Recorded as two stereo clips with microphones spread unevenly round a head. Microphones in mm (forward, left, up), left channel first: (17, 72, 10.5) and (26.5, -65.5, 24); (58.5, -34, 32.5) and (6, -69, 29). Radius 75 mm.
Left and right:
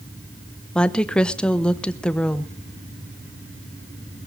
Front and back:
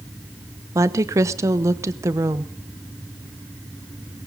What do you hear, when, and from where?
0.8 s a woman speaking: 175° left, 0.9 m